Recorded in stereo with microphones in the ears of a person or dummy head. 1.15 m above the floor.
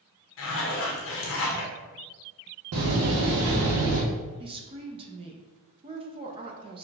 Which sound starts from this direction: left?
A zipper, at 0.4 s.